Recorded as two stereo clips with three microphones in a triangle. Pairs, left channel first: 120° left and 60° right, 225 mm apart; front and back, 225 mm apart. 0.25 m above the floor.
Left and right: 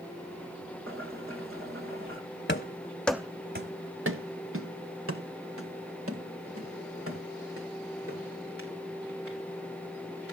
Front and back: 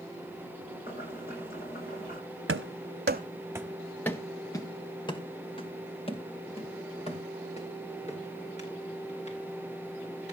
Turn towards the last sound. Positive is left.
turn(degrees=-60)